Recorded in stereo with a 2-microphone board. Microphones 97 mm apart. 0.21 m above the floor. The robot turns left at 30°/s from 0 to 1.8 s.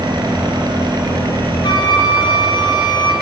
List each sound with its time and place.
1.6 s a flute: 50° left (ahead or behind), 2 m; by 3.1 s 55° left (ahead or behind), 2 m